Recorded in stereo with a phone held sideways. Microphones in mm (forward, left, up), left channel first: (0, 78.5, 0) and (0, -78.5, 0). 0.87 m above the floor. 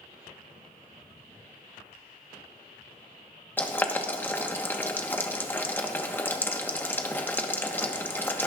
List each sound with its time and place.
3.6 s boiling: 10° left (ahead or behind), 1.2 m